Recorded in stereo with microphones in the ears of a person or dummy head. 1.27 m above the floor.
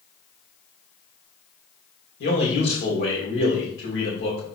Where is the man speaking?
75° left (ahead or behind), 3.5 m.